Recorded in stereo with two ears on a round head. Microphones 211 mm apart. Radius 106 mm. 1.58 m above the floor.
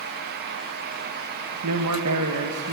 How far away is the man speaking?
About 1.9 m.